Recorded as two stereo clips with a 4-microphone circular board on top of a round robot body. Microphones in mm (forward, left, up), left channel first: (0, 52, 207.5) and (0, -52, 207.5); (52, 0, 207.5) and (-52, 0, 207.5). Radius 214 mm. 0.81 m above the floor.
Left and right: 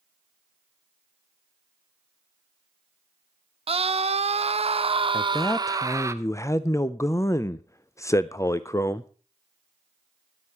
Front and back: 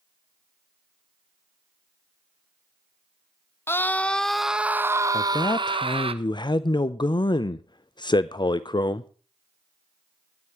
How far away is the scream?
About 1.0 m.